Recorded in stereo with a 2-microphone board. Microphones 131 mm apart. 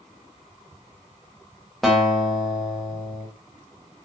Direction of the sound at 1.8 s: Centre (ahead or behind).